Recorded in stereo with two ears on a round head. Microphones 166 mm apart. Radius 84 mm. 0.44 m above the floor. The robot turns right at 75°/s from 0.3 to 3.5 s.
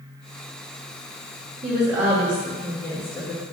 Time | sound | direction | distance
1.6 | a woman speaking | 60° right | 0.9 m